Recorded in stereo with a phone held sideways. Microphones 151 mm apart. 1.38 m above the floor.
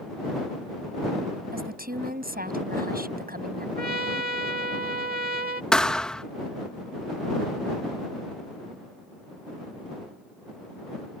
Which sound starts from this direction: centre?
A thud, at 5.7 s.